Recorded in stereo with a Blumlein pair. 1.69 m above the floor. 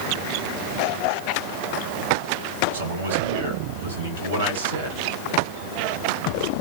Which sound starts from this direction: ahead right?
A man speaking, at 2.7 s.